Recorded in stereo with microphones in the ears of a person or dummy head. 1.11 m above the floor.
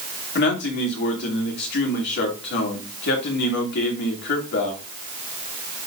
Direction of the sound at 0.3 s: 65° left (ahead or behind).